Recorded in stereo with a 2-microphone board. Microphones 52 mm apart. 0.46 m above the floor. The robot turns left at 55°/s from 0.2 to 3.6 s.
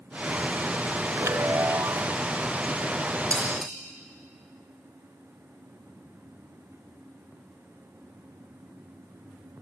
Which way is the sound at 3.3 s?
20° left (ahead or behind).